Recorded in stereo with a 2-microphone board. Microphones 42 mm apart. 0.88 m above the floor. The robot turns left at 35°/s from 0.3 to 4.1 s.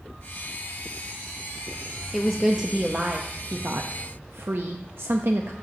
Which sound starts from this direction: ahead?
A woman speaking, at 2.1 s.